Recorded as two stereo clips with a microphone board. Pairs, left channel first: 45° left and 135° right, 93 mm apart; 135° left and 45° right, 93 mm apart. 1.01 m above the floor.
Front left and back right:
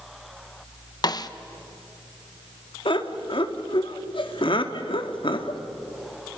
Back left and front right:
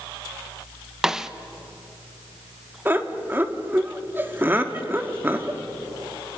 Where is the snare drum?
35° left, 0.9 m.